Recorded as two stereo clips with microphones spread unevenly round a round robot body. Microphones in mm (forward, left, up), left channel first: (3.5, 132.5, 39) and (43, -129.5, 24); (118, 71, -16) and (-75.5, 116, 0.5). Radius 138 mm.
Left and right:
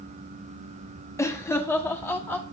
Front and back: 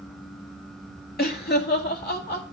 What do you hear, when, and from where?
1.2 s laughter: 20° left, 1.4 m; by 2.4 s 15° left, 2 m